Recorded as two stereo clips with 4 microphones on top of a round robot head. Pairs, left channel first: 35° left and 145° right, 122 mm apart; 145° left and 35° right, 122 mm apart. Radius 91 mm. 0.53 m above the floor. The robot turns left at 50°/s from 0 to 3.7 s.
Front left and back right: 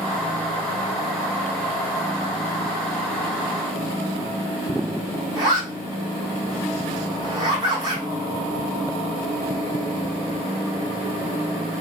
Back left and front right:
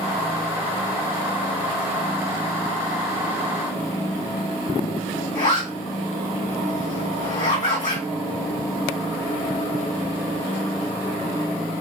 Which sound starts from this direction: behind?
A zipper, at 5.3 s.